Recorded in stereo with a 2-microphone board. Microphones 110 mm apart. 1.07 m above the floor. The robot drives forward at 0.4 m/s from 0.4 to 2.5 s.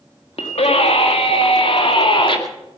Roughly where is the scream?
Left.